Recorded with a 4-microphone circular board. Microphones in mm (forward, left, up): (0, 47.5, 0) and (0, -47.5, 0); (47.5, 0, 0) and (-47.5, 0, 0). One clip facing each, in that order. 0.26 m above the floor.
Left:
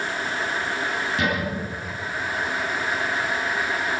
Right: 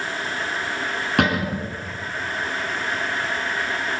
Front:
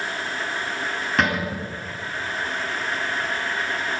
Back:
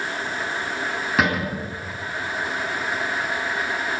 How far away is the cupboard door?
About 3.5 m.